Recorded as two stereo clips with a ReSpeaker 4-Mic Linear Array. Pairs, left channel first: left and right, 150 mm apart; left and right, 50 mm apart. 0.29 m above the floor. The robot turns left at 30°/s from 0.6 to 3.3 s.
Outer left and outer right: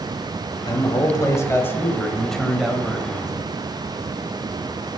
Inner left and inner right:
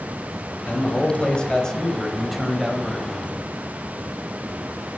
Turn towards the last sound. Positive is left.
turn(degrees=-25)